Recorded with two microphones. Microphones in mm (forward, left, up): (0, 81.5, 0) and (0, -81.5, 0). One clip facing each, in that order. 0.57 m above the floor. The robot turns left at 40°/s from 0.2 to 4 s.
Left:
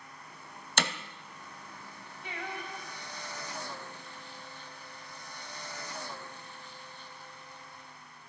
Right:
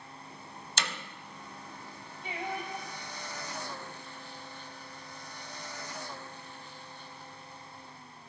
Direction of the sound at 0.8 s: 60° left (ahead or behind).